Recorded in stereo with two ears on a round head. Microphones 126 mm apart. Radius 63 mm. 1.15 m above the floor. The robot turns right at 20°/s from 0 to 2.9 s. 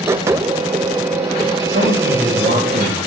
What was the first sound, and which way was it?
A man speaking, 75° right (ahead or behind).